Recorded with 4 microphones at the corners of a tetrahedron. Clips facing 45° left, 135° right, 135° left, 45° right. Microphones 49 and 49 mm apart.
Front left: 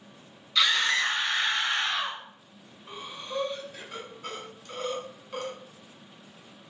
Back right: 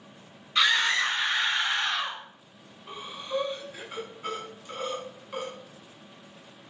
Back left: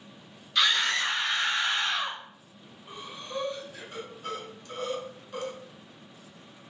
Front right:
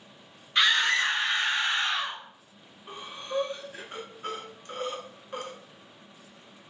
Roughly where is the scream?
Right.